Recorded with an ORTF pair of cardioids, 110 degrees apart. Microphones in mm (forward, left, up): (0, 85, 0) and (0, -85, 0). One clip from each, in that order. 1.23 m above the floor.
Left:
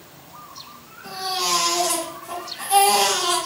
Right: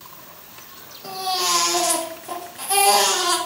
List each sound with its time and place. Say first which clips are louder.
1.0 s a baby crying: right 1 dB; 35° right, 2.0 m